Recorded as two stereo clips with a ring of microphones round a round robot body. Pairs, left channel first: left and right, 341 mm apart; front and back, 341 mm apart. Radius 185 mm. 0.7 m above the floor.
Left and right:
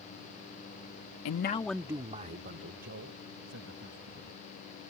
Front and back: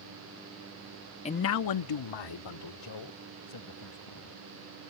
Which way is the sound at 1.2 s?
70° left.